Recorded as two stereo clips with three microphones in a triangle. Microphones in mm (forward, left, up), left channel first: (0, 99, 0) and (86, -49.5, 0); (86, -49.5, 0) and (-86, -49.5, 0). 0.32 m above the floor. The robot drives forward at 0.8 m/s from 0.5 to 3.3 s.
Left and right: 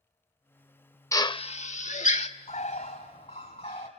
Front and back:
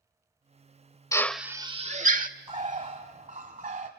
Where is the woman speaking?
No woman speaking in this recording.